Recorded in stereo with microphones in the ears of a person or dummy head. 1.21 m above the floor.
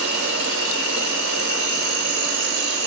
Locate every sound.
0.0 s an insect: 65° right (ahead or behind), 2.5 m